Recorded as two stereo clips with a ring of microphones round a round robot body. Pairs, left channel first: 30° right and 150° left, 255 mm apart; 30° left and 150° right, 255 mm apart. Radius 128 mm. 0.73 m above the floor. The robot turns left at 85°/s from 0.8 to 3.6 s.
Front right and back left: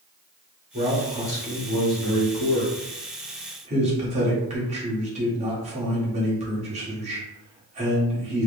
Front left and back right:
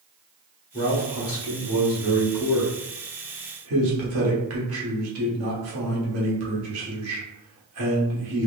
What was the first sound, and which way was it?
A man speaking, 90° left.